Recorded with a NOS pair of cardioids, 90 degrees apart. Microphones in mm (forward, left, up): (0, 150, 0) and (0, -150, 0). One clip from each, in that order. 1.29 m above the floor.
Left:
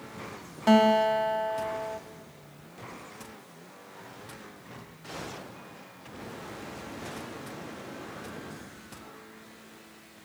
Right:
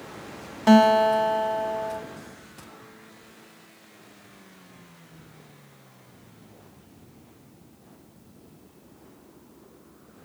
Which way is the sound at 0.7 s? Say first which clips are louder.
Right 4 dB; 25° right.